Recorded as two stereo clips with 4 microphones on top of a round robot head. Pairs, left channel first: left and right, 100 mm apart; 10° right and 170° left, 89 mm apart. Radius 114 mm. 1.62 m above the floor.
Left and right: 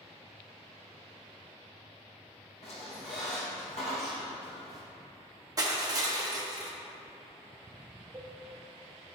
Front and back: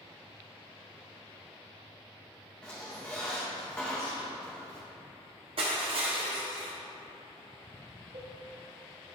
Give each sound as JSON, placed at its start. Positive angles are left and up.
{"t": 2.6, "sound": "a squeak", "azimuth_deg": 65, "distance_m": 0.9}
{"t": 5.6, "sound": "crushing", "azimuth_deg": -145, "distance_m": 0.8}
{"t": 8.1, "sound": "a cowbell", "azimuth_deg": -155, "distance_m": 0.8}